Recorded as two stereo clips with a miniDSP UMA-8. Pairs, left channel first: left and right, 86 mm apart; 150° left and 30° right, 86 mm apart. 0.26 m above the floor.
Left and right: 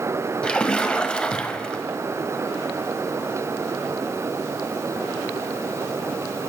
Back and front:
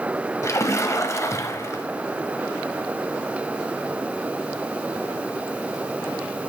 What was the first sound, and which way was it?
A splash, 160° left.